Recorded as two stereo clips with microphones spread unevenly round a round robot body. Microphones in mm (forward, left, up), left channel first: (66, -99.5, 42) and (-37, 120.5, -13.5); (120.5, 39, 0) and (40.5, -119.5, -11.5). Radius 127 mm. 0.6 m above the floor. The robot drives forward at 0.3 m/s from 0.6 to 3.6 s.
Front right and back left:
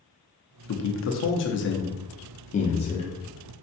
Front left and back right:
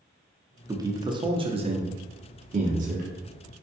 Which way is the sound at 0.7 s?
60° right.